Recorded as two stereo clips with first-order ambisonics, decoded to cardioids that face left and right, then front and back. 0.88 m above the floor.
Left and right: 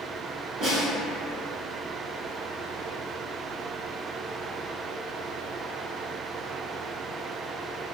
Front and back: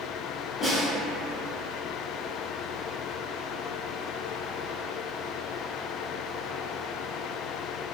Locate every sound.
0.6 s a snare drum: 45° right, 1.3 m